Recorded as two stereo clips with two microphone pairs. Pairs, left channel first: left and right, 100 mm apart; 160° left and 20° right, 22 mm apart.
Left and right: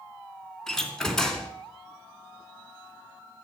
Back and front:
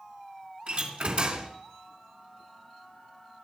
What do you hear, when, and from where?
0.7 s a door slam: 5° left, 3 m